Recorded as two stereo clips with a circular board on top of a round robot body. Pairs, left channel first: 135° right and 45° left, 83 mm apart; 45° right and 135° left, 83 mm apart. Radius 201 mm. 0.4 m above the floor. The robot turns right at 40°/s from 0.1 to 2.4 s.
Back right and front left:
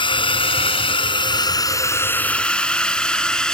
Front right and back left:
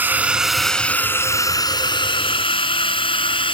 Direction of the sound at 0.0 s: 155° right.